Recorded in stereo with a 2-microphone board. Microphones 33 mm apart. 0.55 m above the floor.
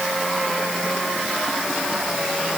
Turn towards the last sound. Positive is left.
No sound to turn to.